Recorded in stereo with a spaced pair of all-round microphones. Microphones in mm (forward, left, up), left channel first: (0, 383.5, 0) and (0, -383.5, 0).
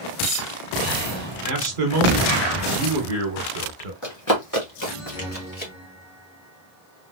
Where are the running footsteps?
25° left (ahead or behind), 1.7 m.